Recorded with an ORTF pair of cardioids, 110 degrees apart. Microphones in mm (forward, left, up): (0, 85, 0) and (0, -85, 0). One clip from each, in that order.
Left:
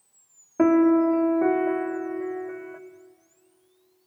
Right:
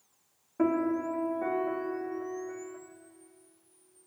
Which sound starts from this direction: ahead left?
A piano, at 0.6 s.